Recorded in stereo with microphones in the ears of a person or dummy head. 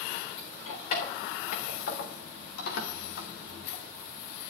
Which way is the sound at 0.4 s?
40° left (ahead or behind).